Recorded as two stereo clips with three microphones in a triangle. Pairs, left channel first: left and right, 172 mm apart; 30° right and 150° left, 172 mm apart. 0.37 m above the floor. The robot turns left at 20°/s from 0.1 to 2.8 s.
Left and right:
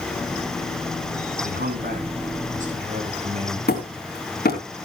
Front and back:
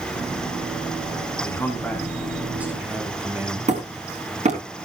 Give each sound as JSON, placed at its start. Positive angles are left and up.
{"t": 1.4, "sound": "a man speaking", "azimuth_deg": -105, "distance_m": 4.0}
{"t": 3.7, "sound": "hammering", "azimuth_deg": 105, "distance_m": 3.5}